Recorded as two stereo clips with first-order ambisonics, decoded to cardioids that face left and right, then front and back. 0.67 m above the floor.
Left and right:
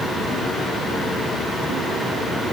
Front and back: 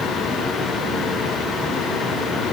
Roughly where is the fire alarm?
No fire alarm in this recording.